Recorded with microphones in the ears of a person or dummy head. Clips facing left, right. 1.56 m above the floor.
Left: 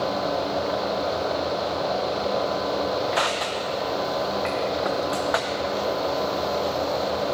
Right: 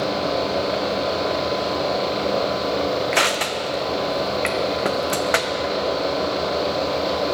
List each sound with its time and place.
3.1 s crushing: 35° right (ahead or behind), 0.6 m